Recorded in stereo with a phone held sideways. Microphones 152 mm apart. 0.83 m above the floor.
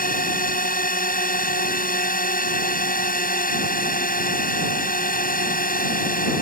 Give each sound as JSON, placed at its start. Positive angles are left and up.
{"t": 0.0, "sound": "a drone", "side_deg": 70}